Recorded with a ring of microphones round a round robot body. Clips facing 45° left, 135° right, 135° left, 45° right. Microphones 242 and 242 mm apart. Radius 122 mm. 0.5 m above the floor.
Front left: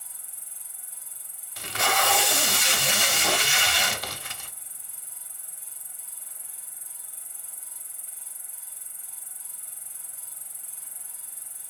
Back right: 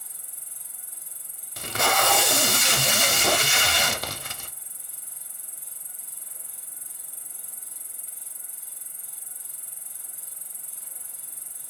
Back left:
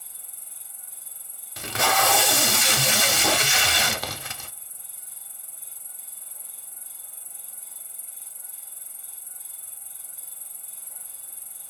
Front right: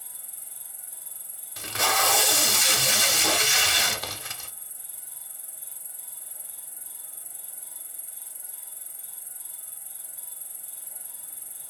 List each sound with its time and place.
0.0 s an insect: 120° right, 0.8 m
1.6 s tape being pulled: 175° left, 0.6 m